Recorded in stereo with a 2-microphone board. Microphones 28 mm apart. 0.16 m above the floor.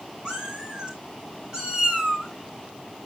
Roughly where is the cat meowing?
Right.